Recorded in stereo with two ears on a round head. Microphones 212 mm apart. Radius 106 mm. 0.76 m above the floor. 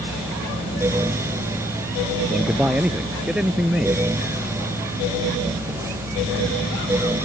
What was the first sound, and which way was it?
A man speaking, 5° right (ahead or behind).